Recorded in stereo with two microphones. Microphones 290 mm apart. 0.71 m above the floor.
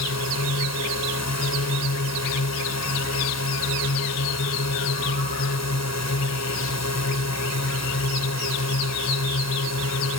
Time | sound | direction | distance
0.0 | a drone | 65° left (ahead or behind) | ?